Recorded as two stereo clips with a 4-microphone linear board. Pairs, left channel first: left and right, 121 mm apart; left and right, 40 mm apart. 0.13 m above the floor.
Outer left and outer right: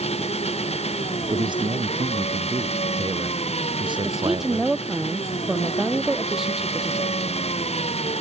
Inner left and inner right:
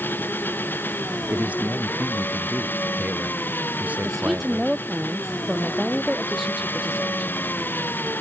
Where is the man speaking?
45° right (ahead or behind).